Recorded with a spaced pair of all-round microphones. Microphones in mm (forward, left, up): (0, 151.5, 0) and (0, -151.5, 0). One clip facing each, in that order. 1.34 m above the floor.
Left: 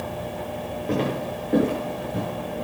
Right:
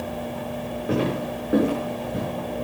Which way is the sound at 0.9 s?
10° right (ahead or behind).